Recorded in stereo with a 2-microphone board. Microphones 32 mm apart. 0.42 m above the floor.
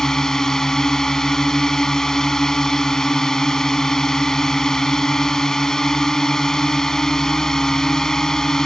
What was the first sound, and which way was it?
A drone, 20° left (ahead or behind).